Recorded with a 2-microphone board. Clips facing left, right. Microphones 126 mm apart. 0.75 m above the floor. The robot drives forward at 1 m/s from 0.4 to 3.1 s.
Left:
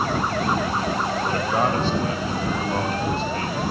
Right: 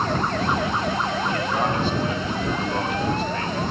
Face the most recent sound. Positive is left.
turn(degrees=30)  # may be behind; listen again after turning